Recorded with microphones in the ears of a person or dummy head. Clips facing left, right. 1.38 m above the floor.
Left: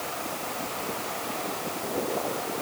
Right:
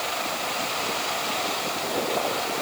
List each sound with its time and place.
Only background noise.